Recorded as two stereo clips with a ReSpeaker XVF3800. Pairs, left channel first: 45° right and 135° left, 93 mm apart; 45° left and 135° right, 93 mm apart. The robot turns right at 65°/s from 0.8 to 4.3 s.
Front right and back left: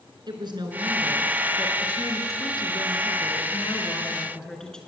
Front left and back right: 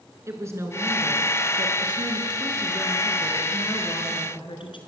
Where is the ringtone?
I don't hear a ringtone.